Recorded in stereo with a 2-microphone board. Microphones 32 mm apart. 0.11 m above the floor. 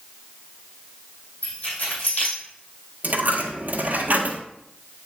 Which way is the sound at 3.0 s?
55° right (ahead or behind).